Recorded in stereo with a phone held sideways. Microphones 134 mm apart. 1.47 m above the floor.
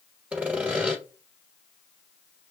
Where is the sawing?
10° right (ahead or behind), 1.2 m.